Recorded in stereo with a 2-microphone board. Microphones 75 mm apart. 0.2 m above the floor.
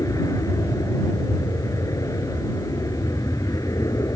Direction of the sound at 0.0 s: 50° left (ahead or behind).